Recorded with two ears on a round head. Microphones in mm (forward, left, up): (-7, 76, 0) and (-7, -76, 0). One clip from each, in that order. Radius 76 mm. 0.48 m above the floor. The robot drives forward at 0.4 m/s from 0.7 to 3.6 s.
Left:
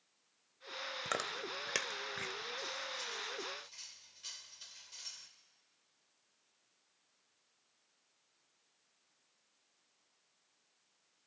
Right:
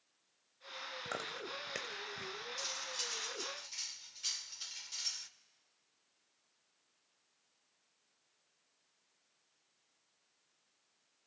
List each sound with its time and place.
1.1 s chewing: 45° left (ahead or behind), 1.1 m; by 2.3 s 65° left (ahead or behind), 0.9 m
2.6 s cutlery clinking: 60° right (ahead or behind), 0.6 m; by 5.3 s 50° right (ahead or behind), 0.7 m